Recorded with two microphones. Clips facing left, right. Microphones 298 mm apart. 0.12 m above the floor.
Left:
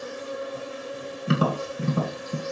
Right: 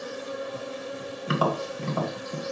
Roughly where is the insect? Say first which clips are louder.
Left 1 dB; right.